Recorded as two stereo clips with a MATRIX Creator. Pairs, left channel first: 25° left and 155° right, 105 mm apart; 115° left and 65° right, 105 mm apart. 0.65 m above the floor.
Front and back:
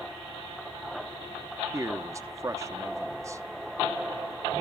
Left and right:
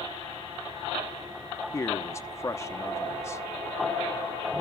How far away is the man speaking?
About 0.6 m.